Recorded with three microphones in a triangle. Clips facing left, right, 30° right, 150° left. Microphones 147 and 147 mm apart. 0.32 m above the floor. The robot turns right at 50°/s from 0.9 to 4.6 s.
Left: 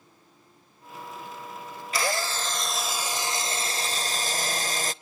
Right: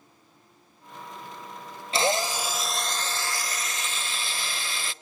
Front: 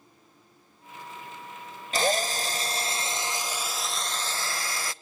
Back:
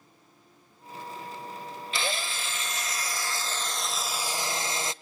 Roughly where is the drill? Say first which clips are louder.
Right 4 dB, front 8 dB; ahead right.